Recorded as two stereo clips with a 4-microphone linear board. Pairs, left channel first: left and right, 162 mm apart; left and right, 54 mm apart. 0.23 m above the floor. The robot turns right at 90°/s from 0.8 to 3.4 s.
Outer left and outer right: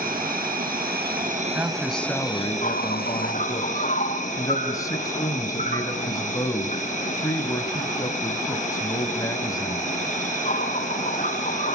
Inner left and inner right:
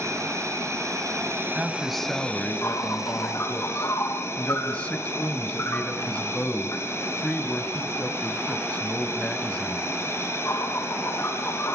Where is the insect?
105° right, 5 m; by 11.7 s 125° left, 5 m.